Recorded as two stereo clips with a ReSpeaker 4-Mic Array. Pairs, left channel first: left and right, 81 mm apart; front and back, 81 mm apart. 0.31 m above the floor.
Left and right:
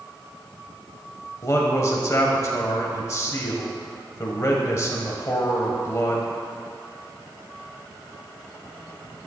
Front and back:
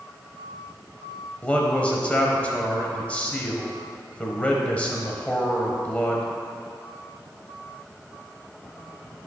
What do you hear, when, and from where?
1.4 s a man speaking: 65° left, 1.2 m